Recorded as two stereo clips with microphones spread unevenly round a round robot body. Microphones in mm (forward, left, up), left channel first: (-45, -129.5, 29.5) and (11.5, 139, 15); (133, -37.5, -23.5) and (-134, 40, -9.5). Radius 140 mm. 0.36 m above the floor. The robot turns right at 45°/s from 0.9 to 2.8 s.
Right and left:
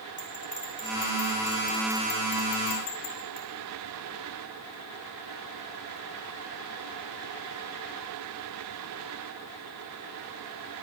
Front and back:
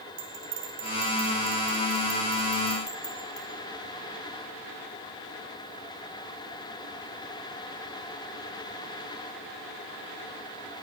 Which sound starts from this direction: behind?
A bell, at 0.2 s.